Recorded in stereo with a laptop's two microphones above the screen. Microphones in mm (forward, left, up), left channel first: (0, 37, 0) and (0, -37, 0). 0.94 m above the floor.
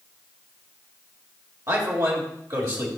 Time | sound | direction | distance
1.7 | a man speaking | 50° right (ahead or behind) | 2.0 m